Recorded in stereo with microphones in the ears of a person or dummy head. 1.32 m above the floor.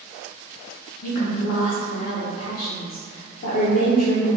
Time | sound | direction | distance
1.0 | a woman speaking | 55° left (ahead or behind) | 0.7 m